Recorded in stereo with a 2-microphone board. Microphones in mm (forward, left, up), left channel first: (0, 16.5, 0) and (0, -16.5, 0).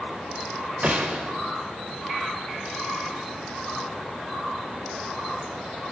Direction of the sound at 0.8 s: 45° right (ahead or behind).